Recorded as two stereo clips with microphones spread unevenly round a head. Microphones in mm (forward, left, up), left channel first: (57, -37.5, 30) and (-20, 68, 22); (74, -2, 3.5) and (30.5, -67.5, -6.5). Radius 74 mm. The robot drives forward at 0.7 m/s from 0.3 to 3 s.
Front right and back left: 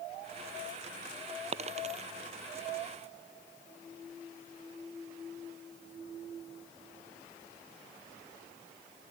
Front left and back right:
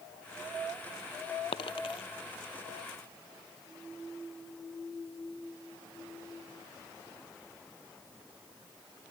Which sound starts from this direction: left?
A dropped coin, at 1.5 s.